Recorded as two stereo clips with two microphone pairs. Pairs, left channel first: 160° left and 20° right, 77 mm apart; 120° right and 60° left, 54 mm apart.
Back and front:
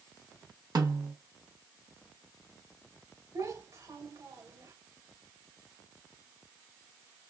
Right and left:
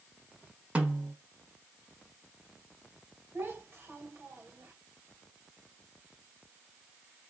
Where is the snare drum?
Straight ahead, 1.2 m.